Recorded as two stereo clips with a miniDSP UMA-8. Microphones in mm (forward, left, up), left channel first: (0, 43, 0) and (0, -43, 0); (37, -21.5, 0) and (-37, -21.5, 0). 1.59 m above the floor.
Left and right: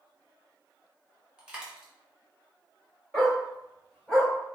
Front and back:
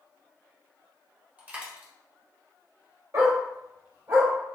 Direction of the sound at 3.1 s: 175° left.